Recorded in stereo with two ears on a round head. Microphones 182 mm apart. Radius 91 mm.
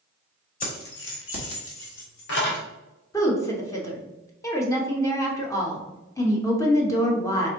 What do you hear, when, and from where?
0.6 s keys jangling: 40° left (ahead or behind), 1.4 m; by 2.6 s 55° left (ahead or behind), 2.0 m
3.1 s a woman speaking: 15° left (ahead or behind), 0.9 m